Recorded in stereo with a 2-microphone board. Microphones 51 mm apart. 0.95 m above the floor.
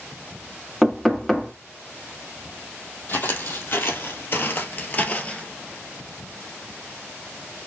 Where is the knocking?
5° left (ahead or behind), 1.4 m.